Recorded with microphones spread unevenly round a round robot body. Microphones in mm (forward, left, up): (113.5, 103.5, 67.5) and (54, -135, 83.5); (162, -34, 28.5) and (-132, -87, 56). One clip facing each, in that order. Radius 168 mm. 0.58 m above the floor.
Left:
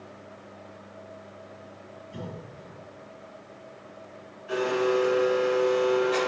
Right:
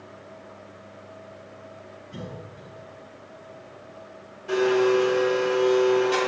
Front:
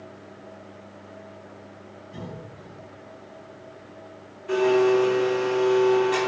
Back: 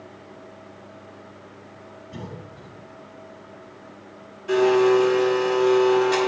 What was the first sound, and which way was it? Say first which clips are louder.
A cough: right 1 dB, back 1 dB; 165° right.